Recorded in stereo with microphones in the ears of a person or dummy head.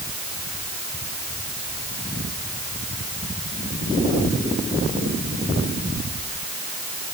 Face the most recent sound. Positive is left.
No sound to turn to.